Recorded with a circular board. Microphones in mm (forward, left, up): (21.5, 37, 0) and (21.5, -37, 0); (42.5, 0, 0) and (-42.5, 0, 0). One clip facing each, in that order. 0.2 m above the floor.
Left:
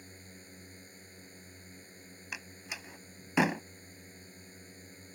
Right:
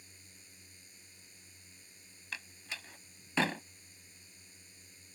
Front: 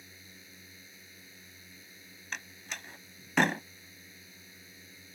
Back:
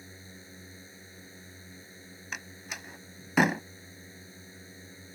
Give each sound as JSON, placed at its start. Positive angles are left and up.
{"t": 0.0, "sound": "a drone", "azimuth_deg": 125}
{"t": 2.3, "sound": "a door slam", "azimuth_deg": 115}